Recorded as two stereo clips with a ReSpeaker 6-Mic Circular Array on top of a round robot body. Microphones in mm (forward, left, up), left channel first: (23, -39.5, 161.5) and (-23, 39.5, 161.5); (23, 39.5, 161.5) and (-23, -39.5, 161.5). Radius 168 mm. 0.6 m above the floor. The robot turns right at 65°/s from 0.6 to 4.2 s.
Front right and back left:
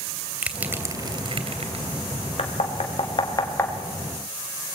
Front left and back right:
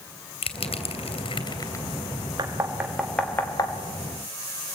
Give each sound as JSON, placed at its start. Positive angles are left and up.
{"t": 0.4, "sound": "crushing", "azimuth_deg": 45, "distance_m": 2.5}
{"t": 2.4, "sound": "knocking", "azimuth_deg": -70, "distance_m": 2.5}